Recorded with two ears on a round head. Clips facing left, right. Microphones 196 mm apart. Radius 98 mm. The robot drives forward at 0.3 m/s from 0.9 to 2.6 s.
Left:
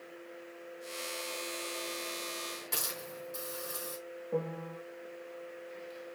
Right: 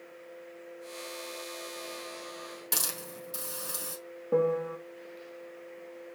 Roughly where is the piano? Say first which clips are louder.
Right 10 dB; right.